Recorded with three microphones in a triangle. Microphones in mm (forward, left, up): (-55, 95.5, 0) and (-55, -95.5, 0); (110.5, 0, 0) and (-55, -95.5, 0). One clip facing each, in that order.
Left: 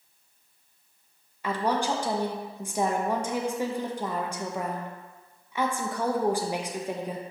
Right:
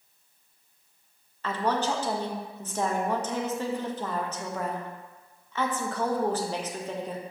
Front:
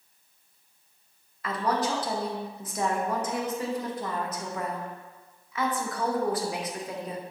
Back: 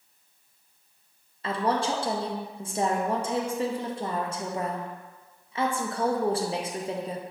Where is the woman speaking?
165° left, 0.6 m.